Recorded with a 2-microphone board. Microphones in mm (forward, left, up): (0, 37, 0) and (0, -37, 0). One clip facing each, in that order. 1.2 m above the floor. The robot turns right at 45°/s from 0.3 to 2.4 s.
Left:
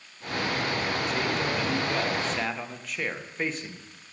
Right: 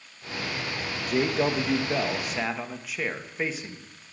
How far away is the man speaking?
About 0.9 m.